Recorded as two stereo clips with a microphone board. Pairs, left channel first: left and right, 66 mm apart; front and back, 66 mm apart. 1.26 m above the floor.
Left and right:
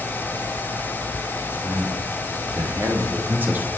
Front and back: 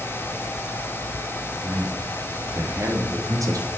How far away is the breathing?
No breathing in this recording.